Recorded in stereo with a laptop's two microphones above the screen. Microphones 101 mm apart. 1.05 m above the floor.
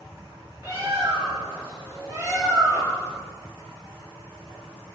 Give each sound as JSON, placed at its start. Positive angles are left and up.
{"t": 0.6, "sound": "a bird", "side_deg": -25, "distance_m": 0.9}